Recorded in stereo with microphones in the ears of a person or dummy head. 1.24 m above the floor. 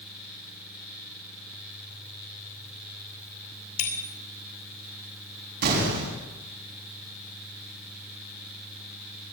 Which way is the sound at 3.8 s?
60° left (ahead or behind).